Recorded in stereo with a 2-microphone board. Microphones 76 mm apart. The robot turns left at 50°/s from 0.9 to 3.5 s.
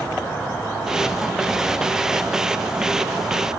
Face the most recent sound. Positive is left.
turn(degrees=-95)